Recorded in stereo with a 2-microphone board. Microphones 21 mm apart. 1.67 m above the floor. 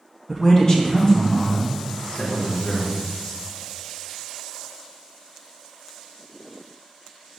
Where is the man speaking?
15° left (ahead or behind), 0.6 m; by 3.0 s 75° left (ahead or behind), 1.7 m.